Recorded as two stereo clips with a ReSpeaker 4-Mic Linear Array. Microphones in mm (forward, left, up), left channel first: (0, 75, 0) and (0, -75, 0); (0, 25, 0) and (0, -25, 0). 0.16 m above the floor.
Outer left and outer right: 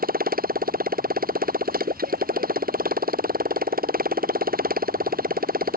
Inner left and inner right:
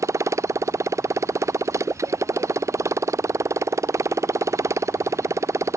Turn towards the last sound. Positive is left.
turn(degrees=-80)